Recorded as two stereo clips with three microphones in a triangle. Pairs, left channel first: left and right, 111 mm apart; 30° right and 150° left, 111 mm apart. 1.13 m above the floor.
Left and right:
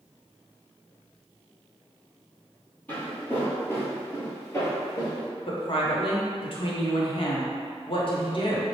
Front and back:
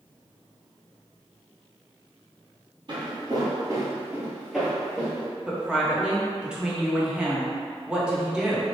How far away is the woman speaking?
About 0.7 m.